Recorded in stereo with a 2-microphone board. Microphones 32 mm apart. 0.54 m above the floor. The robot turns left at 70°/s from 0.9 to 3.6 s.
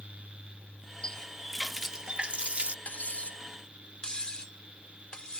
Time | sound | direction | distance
1.0 | a running tap | 40° left | ?
2.9 | cutlery clinking | 60° left (ahead or behind) | ?